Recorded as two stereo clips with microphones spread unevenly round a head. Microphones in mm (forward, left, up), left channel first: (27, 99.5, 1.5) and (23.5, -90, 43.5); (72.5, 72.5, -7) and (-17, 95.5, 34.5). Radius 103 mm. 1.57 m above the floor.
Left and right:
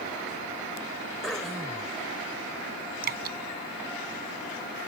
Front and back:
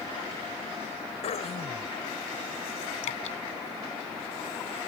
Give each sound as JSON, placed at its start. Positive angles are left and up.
{"t": 1.2, "sound": "throat clearing", "azimuth_deg": 0}
{"t": 3.0, "sound": "dripping", "azimuth_deg": -55}